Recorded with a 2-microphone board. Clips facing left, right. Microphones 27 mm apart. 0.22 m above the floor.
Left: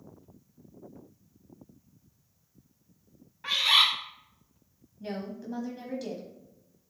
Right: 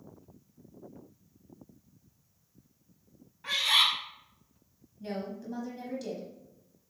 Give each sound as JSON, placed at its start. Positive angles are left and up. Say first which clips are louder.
{"t": 3.4, "sound": "a bird", "louder": "left 3 dB", "side_deg": 25, "distance_m": 2.0}
{"t": 5.0, "sound": "a woman speaking", "louder": "even", "side_deg": 10, "distance_m": 1.1}